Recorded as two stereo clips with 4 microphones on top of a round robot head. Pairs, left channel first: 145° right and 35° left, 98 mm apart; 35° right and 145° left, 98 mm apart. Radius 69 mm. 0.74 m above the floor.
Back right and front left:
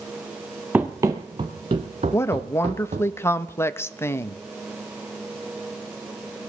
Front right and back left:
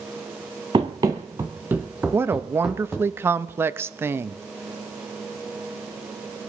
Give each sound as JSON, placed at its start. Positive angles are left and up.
{"t": 0.7, "sound": "running footsteps", "azimuth_deg": 105, "distance_m": 0.9}
{"t": 2.1, "sound": "a woman speaking", "azimuth_deg": 180, "distance_m": 0.8}